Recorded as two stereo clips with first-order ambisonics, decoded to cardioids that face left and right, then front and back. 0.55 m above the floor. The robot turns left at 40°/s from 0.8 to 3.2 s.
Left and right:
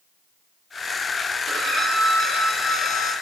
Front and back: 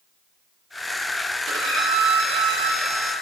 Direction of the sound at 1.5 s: 145° right.